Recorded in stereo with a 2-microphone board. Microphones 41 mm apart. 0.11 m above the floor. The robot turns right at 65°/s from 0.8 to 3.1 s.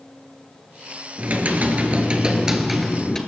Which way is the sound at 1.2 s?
105° right.